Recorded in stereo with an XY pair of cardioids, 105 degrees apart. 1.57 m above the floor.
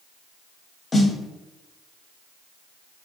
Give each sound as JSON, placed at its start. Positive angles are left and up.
{"t": 0.9, "sound": "a snare drum", "azimuth_deg": 30, "distance_m": 0.6}